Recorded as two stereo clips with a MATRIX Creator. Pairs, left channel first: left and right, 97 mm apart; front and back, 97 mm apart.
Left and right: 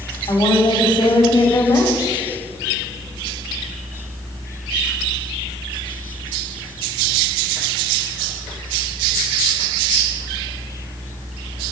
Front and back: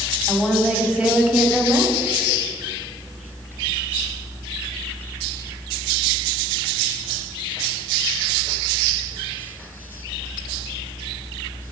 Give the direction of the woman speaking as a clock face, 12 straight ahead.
9 o'clock.